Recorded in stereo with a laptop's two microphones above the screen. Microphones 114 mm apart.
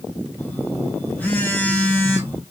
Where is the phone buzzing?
15° left (ahead or behind), 0.7 m.